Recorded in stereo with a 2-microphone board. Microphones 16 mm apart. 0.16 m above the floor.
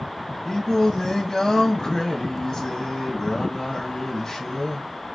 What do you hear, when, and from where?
0.5 s singing: 40° left (ahead or behind), 0.8 m